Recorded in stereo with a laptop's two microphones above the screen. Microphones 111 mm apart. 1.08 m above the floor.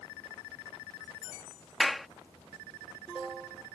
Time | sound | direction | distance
1.8 | a clap | centre (ahead or behind) | ?